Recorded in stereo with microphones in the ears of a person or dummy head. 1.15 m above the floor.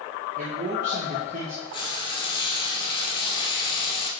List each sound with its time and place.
0.4 s a man speaking: 45° right (ahead or behind), 1.4 m
1.7 s frying: 30° left (ahead or behind), 0.9 m